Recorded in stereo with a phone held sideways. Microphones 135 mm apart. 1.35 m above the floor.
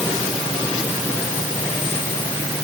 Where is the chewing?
No chewing in this recording.